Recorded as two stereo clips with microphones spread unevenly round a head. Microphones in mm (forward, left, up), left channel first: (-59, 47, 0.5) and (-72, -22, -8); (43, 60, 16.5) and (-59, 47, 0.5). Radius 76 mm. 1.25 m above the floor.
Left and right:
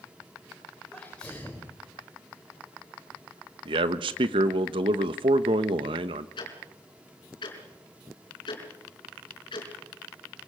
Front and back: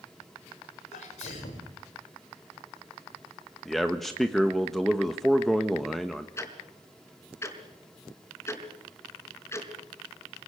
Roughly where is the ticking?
Ahead left.